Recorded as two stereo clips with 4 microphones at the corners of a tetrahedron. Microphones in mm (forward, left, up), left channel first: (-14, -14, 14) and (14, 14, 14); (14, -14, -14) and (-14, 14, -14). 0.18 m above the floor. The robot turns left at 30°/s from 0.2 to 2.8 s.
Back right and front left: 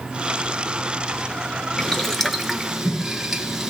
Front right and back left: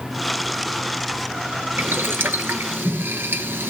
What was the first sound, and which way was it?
Boiling, 150° left.